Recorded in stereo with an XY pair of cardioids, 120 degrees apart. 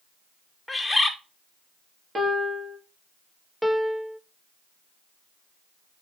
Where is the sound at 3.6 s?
Straight ahead, 0.5 m.